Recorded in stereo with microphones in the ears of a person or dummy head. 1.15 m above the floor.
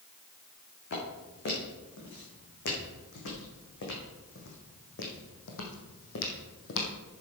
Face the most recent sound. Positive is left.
turn(degrees=65)  # may be behind; listen again after turning